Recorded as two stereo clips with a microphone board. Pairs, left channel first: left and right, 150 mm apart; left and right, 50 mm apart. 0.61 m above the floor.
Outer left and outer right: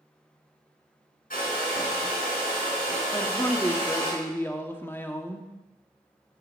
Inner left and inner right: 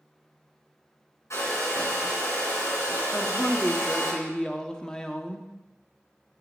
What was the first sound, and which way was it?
A hair dryer, 70° left (ahead or behind).